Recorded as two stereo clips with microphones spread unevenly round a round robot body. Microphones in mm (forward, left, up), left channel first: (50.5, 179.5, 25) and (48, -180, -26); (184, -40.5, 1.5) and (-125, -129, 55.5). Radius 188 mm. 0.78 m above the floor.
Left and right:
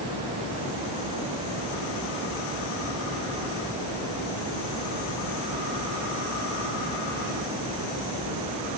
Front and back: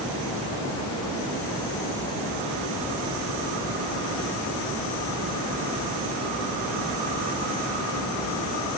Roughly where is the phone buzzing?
I don't hear a phone buzzing.